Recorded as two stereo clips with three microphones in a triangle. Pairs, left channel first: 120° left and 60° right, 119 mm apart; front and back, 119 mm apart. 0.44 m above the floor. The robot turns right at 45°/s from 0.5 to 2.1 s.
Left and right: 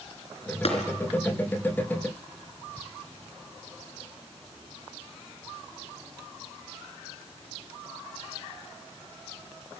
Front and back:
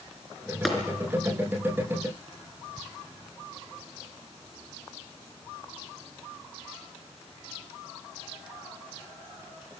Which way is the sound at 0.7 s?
90° left.